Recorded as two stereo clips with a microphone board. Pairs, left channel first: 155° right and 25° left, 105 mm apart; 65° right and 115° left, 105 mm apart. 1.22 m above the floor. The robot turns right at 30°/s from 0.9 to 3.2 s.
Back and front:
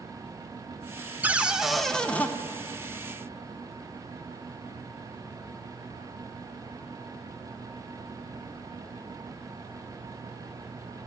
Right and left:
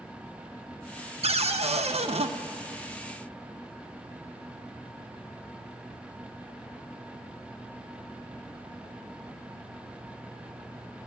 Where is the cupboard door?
95° left, 0.5 m; by 2.3 s 130° left, 0.5 m.